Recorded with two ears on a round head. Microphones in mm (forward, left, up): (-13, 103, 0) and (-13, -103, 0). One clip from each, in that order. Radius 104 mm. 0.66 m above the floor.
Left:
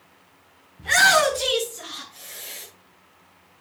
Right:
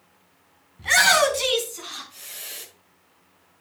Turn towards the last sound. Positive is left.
turn(degrees=-80)